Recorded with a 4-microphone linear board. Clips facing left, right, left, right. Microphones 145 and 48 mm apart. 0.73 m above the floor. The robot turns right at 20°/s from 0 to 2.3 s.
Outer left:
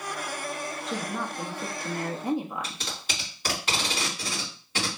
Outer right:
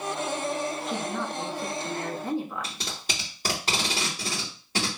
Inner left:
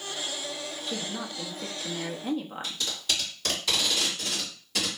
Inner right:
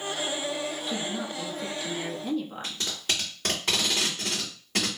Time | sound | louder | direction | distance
0.9 | a woman speaking | outer right 2 dB, inner right 3 dB | centre (ahead or behind) | 0.7 m
2.6 | tape being pulled | outer right 1 dB, inner right 1 dB | 40° right (ahead or behind) | 2 m